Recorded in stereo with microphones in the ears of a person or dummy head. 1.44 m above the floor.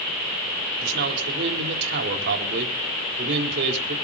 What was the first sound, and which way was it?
A man speaking, 60° right (ahead or behind).